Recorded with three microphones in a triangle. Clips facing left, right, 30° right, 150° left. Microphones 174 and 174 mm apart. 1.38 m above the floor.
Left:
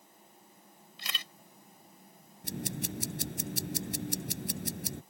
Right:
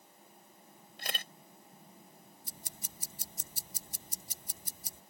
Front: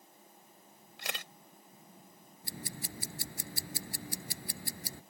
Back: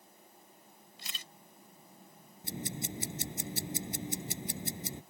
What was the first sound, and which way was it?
A camera shutter, 50° right.